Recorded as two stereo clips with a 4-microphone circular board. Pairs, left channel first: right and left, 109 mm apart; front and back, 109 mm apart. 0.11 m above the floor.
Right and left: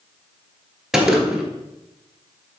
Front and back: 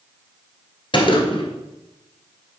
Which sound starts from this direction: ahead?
A gunshot, at 0.9 s.